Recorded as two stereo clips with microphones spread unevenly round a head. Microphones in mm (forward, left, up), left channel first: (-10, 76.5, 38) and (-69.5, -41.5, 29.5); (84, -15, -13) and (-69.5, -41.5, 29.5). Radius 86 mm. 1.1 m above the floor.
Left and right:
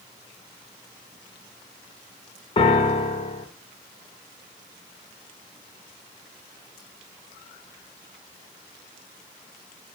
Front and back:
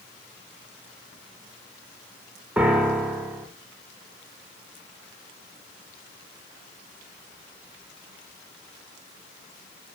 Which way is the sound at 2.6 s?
110° left.